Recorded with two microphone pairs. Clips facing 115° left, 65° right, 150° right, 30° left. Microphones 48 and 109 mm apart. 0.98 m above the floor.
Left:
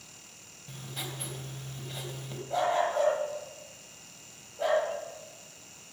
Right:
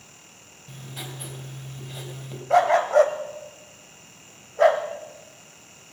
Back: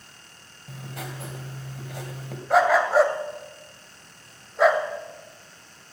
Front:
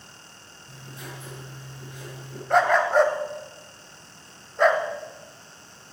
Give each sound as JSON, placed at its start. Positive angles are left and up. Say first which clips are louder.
{"t": 0.7, "sound": "writing", "louder": "right 2 dB, back 4 dB", "azimuth_deg": -150, "distance_m": 3.0}
{"t": 2.5, "sound": "a dog barking", "louder": "right 10 dB, back 1 dB", "azimuth_deg": -65, "distance_m": 1.7}